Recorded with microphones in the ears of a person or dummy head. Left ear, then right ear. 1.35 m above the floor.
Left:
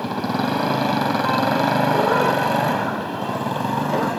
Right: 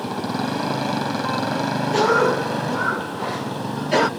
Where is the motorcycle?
10° left (ahead or behind); by 4.2 s 40° left (ahead or behind).